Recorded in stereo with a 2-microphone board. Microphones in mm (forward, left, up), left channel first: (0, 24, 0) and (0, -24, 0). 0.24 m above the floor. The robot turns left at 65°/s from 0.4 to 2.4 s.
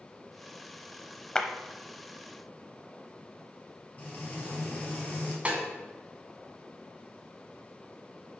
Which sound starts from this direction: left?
Frying, at 4.0 s.